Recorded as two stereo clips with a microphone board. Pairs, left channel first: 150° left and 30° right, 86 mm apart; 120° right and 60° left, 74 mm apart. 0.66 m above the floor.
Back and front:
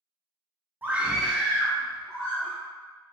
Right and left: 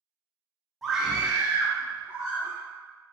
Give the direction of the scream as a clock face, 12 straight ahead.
1 o'clock.